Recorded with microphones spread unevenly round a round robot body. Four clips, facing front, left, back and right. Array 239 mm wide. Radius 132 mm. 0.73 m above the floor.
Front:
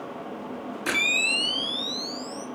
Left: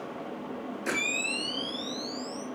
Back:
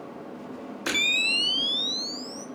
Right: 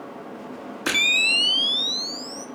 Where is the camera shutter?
90° right, 5 m.